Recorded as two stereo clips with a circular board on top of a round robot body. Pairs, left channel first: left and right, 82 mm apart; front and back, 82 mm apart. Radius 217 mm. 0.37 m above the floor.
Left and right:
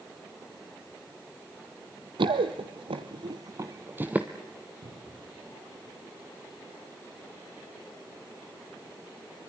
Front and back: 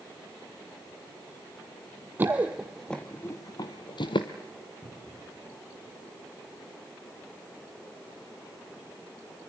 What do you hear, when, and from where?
2.2 s running footsteps: 115° right, 0.8 m; by 4.3 s 15° right, 0.9 m
4.8 s a cupboard door: 90° right, 7.5 m